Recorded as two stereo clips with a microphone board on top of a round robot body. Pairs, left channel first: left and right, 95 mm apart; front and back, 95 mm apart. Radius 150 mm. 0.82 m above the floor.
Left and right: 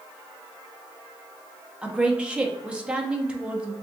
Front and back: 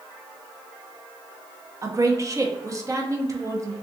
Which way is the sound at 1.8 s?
160° right.